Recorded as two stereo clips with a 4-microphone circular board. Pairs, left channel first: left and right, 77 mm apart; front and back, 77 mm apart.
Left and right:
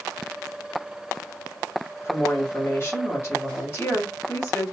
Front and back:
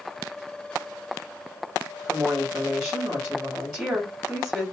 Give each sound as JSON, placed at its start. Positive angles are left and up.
{"t": 2.0, "sound": "a woman speaking", "azimuth_deg": 80, "distance_m": 1.4}